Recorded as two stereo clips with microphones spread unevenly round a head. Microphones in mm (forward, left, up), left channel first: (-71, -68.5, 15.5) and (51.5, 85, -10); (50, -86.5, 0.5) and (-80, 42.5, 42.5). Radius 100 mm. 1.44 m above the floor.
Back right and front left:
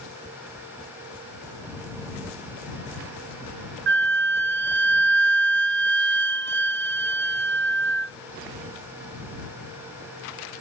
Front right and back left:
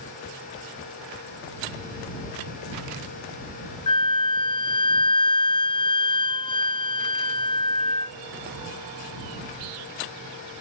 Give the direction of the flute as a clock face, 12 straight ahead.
11 o'clock.